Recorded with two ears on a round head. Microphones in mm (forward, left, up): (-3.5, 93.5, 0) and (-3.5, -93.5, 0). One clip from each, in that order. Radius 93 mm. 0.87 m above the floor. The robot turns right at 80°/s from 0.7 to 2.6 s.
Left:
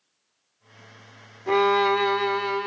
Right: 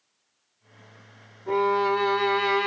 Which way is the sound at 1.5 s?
120° left.